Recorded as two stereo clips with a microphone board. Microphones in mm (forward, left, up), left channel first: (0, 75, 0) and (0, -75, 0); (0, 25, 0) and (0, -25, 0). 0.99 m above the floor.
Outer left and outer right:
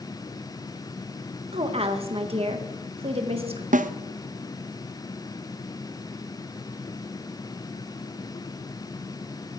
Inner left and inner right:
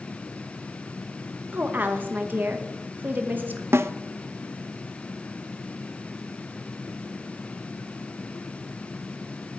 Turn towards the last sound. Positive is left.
turn(degrees=-60)  # may be behind; listen again after turning